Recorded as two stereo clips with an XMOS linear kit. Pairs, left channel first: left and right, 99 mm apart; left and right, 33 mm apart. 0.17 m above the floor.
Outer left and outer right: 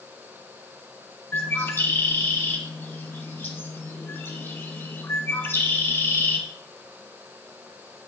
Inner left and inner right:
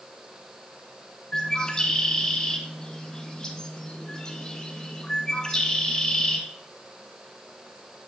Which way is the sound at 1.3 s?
25° left (ahead or behind).